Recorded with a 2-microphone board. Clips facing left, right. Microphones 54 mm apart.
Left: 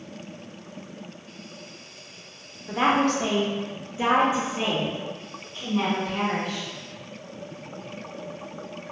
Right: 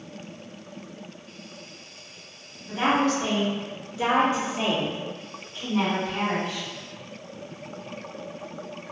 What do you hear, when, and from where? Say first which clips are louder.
2.7 s a woman speaking: left 1 dB; 75° left (ahead or behind), 0.9 m; by 6.7 s 25° right (ahead or behind), 1.6 m